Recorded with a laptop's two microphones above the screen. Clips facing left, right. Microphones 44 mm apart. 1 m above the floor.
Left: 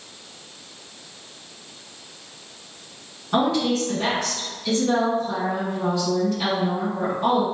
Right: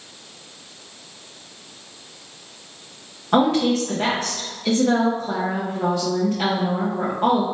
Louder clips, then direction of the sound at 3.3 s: Right 3 dB; 55° right (ahead or behind).